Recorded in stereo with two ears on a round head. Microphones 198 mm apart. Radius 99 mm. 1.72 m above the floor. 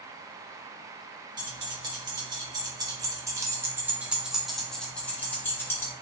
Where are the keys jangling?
20° right (ahead or behind), 1.6 m; by 5.9 s 10° left (ahead or behind), 1.2 m.